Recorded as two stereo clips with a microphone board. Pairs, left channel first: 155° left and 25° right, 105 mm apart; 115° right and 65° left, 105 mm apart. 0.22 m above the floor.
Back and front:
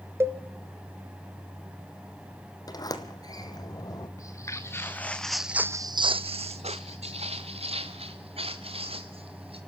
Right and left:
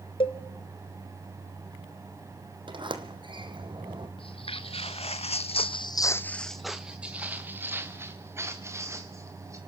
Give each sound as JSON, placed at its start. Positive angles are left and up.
{"t": 0.2, "sound": "a cowbell", "azimuth_deg": -85, "distance_m": 1.1}
{"t": 2.7, "sound": "a sliding door", "azimuth_deg": 105, "distance_m": 1.6}
{"t": 4.2, "sound": "footsteps", "azimuth_deg": -145, "distance_m": 1.6}